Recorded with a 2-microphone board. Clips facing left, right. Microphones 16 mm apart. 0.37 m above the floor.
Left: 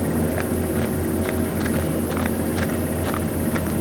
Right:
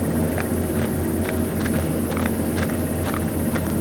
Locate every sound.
Only background noise.